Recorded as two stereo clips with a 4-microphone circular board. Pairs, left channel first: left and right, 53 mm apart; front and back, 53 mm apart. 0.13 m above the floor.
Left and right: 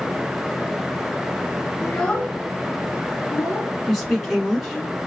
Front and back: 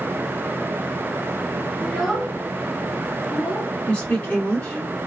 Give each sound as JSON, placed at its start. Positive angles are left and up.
{"t": 1.8, "sound": "a child speaking", "azimuth_deg": 85, "distance_m": 1.2}
{"t": 3.9, "sound": "a woman speaking", "azimuth_deg": -5, "distance_m": 1.1}